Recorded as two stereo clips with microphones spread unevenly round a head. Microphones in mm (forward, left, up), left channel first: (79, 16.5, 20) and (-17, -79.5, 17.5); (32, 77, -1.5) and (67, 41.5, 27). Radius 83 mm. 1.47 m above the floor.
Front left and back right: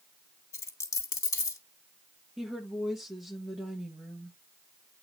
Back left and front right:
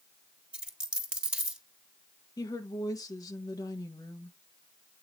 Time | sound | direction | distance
0.5 | a dropped coin | 15° right | 1.7 m
2.4 | a woman speaking | 135° left | 1.5 m